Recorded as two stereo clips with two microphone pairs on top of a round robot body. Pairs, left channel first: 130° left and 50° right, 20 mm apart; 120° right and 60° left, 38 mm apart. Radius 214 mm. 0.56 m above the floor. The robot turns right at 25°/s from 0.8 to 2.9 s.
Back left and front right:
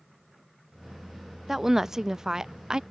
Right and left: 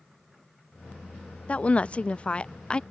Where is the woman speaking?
115° right; by 2.8 s 85° right.